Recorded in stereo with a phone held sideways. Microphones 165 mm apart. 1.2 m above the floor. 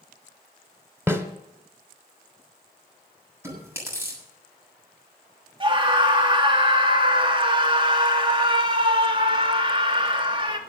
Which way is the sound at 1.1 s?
15° right (ahead or behind).